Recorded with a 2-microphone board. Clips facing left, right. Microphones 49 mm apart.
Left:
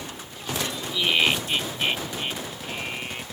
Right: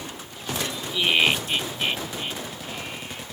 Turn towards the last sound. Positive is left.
turn(degrees=45)  # may be behind; listen again after turning